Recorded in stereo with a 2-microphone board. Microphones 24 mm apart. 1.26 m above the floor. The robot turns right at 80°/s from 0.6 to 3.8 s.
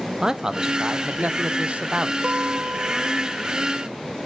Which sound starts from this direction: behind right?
A man speaking, at 0.2 s.